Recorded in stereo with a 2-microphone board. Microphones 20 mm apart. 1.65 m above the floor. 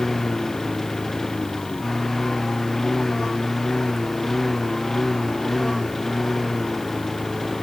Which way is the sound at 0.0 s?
25° left (ahead or behind).